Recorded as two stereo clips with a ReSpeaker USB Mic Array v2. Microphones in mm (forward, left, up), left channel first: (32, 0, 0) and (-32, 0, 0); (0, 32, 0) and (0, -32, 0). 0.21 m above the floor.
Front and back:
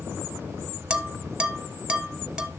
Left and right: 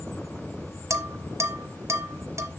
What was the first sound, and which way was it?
Dishes clattering, 105° right.